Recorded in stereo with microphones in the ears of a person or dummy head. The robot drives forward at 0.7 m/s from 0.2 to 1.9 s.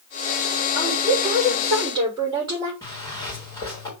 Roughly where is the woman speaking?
Right.